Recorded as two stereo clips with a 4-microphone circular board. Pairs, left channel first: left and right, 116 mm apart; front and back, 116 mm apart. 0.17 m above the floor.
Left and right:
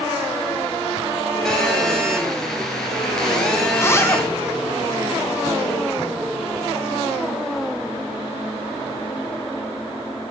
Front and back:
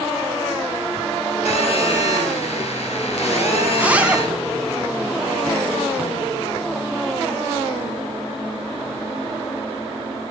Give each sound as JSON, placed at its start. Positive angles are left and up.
{"t": 1.4, "sound": "a phone buzzing", "azimuth_deg": 5, "distance_m": 1.9}
{"t": 3.7, "sound": "a zipper", "azimuth_deg": 120, "distance_m": 0.6}